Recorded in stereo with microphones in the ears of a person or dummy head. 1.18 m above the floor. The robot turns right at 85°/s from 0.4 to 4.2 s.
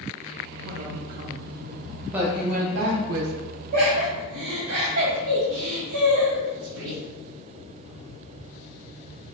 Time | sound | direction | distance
0.6 | a man speaking | 105° right | 0.5 m
2.0 | a woman speaking | straight behind | 0.6 m
3.7 | laughter | 45° right (ahead or behind) | 0.8 m